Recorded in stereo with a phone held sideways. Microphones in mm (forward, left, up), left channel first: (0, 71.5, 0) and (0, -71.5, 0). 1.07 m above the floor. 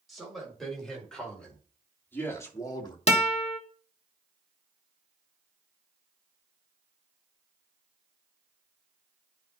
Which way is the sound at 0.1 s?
Centre (ahead or behind).